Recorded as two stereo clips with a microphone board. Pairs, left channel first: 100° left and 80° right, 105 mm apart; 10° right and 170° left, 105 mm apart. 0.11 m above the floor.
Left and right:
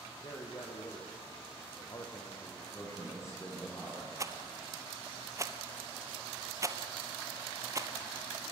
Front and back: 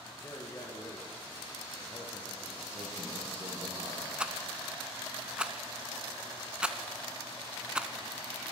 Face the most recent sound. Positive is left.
turn(degrees=-115)